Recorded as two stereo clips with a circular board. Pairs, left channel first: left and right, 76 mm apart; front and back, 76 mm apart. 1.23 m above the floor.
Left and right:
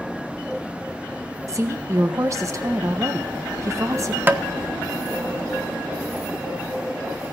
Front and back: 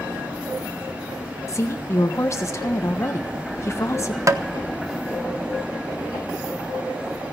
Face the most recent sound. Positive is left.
turn(degrees=-150)